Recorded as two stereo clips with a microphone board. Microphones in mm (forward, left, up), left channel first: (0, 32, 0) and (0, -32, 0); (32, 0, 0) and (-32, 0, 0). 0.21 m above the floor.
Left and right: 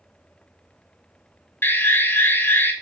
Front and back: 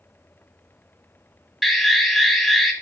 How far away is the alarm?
About 1.0 m.